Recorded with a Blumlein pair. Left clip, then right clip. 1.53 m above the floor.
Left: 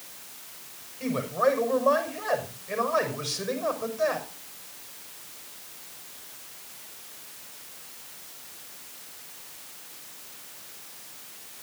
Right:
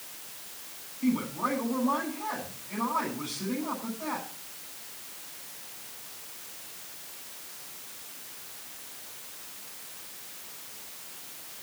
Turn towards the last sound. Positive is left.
turn(degrees=40)